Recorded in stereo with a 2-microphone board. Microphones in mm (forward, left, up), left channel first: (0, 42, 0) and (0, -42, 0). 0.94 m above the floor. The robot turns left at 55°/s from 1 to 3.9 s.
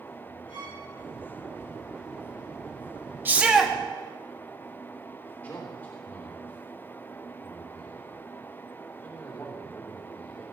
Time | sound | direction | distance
0.5 | a violin | 75° left (ahead or behind) | 5 m
3.2 | a shout | 25° right (ahead or behind) | 1.5 m
5.4 | a man speaking | 20° left (ahead or behind) | 3 m